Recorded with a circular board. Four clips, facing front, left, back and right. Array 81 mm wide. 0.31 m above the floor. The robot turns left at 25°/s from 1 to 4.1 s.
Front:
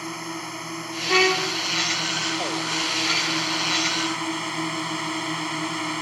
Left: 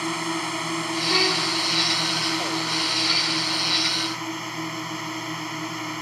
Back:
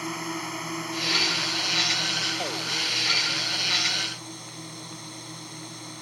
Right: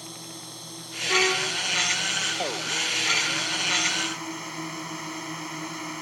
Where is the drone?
90° left; by 6.0 s 15° left.